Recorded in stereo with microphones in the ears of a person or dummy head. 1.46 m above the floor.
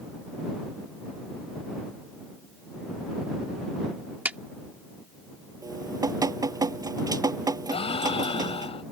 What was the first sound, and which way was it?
A clap, 10° right (ahead or behind).